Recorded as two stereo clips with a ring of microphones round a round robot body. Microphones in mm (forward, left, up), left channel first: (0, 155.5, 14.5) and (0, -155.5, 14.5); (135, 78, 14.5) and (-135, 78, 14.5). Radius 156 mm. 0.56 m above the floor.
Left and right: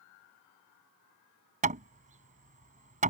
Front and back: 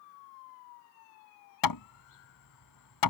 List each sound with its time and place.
1.6 s hammering: 20° right